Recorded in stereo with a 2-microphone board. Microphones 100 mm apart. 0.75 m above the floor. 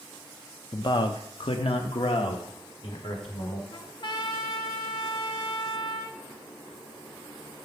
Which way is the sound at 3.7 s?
50° left (ahead or behind).